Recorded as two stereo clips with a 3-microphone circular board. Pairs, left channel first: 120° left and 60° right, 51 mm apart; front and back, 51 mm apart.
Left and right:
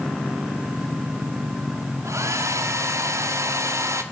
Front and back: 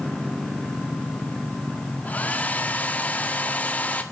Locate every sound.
2.0 s a hair dryer: 60° right, 1.8 m